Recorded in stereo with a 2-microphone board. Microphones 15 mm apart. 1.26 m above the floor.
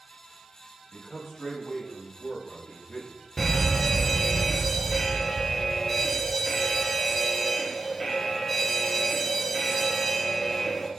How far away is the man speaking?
About 2 m.